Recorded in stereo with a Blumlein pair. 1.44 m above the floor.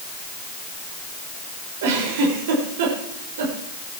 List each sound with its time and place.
1.8 s a giggle: 55° right, 5.5 m